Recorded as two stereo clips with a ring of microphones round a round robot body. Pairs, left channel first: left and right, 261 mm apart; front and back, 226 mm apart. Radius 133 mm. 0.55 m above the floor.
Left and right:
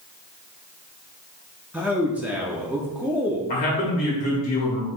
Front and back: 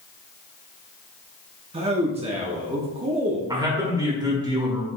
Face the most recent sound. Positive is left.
turn(degrees=120)